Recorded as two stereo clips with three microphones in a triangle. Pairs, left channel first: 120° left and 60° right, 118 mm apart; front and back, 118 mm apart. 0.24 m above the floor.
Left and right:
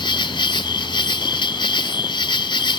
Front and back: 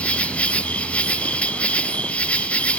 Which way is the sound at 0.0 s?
80° left.